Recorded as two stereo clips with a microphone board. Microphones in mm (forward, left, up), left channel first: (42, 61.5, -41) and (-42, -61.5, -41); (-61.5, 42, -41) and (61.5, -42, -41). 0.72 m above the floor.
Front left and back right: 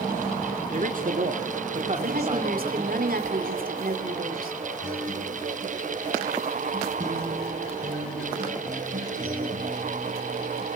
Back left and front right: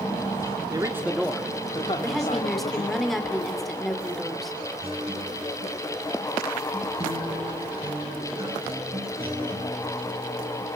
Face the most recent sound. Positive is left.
turn(degrees=-90)